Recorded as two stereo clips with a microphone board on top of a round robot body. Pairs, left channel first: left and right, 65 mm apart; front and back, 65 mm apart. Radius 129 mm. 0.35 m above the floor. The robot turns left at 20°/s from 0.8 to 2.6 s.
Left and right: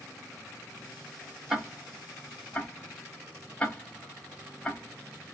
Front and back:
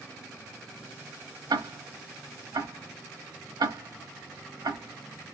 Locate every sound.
1.5 s ticking: 170° right, 0.9 m; by 5.3 s 170° left, 0.9 m